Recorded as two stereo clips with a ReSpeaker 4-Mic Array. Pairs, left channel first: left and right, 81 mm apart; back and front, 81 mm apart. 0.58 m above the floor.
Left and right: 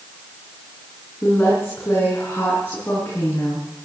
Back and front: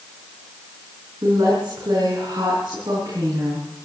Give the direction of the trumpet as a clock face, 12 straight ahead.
I don't hear a trumpet.